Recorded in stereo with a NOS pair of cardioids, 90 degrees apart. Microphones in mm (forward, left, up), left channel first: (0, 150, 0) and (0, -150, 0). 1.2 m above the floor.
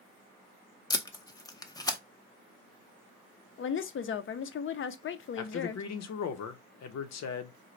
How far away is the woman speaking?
About 0.6 m.